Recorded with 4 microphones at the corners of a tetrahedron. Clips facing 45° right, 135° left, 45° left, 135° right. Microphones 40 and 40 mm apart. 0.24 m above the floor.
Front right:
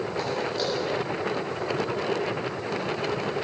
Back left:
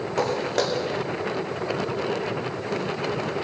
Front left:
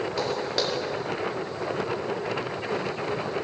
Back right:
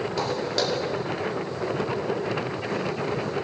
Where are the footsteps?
130° left, 8.5 m; by 3.3 s 110° left, 10.5 m.